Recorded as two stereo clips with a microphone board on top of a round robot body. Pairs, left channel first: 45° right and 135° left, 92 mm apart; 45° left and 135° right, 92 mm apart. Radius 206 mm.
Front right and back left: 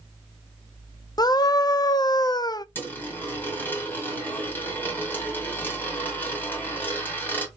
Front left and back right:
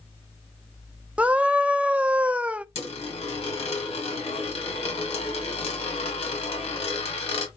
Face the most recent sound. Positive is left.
turn(degrees=25)